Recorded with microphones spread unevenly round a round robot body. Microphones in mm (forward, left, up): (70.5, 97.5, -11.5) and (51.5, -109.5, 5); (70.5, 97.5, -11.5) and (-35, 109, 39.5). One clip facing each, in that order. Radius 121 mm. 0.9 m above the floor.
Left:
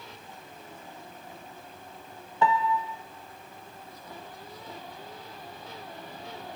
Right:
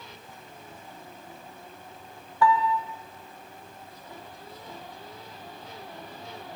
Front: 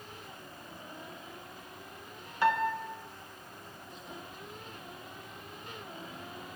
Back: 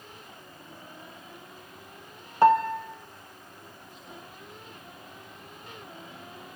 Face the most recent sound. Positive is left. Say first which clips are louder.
# right 2 dB, back 8 dB
turn(degrees=120)